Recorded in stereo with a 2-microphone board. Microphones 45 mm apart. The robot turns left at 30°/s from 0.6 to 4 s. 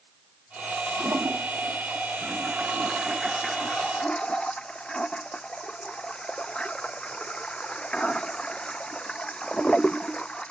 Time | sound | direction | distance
1.0 | a toilet flushing | 110° right | ?